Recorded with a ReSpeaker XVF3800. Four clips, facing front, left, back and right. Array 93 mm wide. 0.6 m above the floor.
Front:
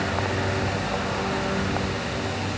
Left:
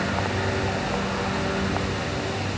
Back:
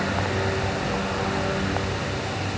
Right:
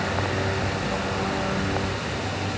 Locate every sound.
Only background noise.